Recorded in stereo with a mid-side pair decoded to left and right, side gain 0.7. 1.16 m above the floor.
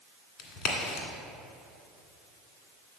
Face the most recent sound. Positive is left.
turn(degrees=60)